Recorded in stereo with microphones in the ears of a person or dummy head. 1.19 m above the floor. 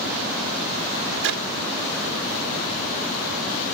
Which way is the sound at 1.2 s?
70° right (ahead or behind).